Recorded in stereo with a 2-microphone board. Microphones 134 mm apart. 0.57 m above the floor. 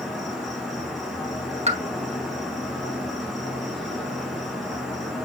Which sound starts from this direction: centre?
An insect, at 0.0 s.